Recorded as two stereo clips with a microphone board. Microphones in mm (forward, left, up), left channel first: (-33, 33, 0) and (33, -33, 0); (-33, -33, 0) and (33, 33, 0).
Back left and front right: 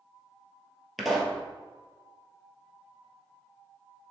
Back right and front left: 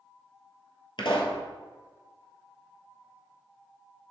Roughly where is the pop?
Behind right.